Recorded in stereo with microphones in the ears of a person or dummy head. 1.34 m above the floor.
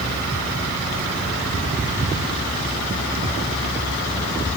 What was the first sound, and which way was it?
Only background noise.